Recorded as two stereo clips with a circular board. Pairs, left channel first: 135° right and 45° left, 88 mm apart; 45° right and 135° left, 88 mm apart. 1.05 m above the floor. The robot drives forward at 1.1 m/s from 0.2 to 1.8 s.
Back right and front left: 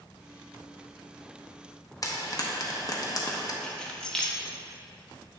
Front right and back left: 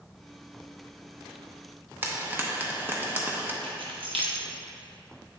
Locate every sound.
2.0 s frying: 165° right, 0.7 m
3.6 s keys jangling: 145° left, 0.9 m